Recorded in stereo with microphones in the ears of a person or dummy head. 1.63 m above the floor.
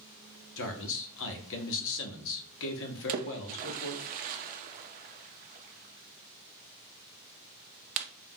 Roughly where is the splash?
Right.